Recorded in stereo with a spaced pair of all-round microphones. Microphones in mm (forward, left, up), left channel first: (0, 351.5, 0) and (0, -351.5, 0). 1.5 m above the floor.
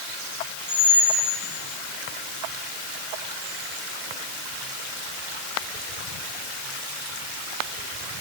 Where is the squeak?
40° right (ahead or behind), 2.5 m.